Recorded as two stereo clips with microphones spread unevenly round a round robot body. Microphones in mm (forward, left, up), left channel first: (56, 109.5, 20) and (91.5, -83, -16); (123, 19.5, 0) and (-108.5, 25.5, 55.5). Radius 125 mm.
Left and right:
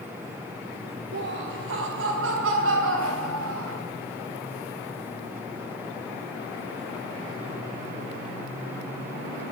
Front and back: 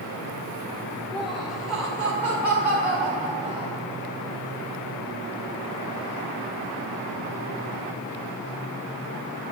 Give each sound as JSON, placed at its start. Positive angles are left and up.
{"t": 1.1, "sound": "laughter", "azimuth_deg": -85, "distance_m": 1.5}